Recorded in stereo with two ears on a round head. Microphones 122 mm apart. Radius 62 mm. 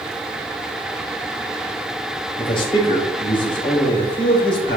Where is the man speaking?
40° left (ahead or behind), 4 m.